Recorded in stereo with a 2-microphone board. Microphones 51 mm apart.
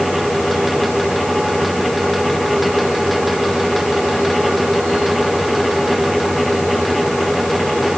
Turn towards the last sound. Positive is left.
No sound to turn to.